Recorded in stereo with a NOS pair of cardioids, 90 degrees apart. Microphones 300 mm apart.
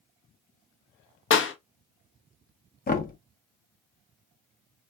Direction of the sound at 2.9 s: 30° left.